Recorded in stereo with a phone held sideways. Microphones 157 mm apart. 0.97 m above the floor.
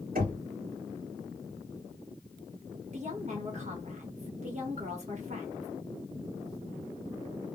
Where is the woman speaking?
50° right (ahead or behind), 1.2 m.